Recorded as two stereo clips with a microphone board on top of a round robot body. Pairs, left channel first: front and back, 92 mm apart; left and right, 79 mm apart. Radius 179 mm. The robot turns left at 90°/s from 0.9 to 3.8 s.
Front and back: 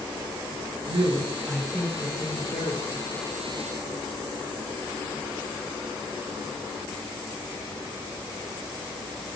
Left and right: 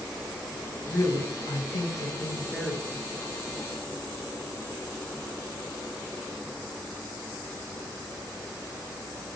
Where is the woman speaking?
155° left, 1.3 m; by 3.4 s 70° right, 1.3 m.